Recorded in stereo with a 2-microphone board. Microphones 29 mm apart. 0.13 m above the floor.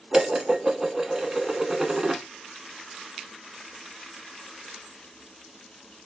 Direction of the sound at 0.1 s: 15° right (ahead or behind).